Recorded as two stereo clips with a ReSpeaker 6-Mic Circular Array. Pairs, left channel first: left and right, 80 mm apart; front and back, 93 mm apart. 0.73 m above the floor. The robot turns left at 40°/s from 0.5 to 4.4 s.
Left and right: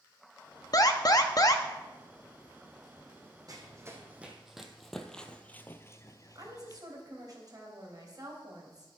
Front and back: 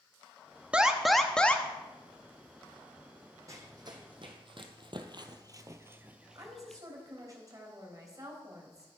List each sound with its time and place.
0.7 s an alarm: 105° left, 0.8 m; by 1.6 s 65° left, 0.8 m
3.5 s running footsteps: 125° right, 2 m; by 6.8 s 80° left, 1.1 m
6.3 s a woman speaking: 130° right, 3.5 m